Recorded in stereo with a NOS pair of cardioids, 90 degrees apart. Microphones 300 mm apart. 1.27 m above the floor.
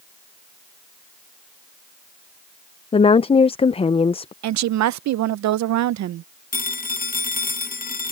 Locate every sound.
2.9 s a woman speaking: 20° left
4.4 s a woman speaking: 65° right
6.5 s a phone ringing: 30° left